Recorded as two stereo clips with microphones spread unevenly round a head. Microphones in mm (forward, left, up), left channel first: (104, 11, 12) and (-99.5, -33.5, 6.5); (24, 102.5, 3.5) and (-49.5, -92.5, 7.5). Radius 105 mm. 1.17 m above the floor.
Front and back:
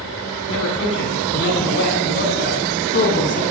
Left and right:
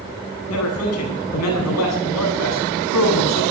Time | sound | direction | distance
0.5 | a man speaking | 45° left | 9 m